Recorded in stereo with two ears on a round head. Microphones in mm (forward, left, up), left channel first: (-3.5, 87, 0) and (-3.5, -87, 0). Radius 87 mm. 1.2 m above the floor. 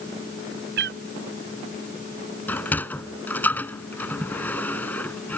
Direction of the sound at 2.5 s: 10° left (ahead or behind).